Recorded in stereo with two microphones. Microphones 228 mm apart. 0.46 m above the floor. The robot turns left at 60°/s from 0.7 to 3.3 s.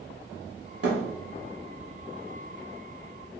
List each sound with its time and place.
0.8 s a thud: 80° right, 1.3 m; by 1.0 s 90° right, 1.3 m